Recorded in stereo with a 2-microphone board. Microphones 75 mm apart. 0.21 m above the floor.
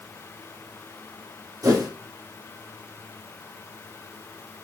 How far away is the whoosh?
About 3.5 m.